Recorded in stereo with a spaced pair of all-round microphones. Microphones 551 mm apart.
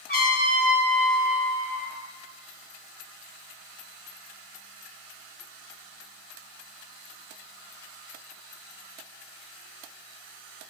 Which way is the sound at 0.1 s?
60° left (ahead or behind).